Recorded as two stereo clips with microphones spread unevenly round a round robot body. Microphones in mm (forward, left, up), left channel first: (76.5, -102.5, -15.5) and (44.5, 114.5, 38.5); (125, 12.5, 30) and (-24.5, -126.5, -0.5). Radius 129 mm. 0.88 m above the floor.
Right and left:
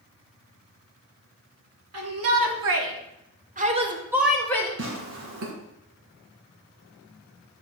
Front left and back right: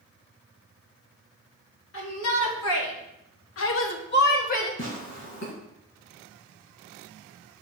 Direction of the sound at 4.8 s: 85° left.